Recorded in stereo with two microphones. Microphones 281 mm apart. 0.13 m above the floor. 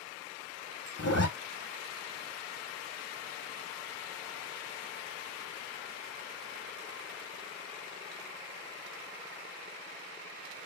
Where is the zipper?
65° left (ahead or behind), 0.9 m.